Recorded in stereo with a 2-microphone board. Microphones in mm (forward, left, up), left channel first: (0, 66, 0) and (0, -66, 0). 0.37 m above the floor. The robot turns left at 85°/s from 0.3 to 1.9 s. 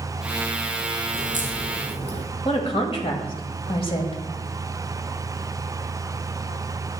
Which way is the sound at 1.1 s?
65° left (ahead or behind).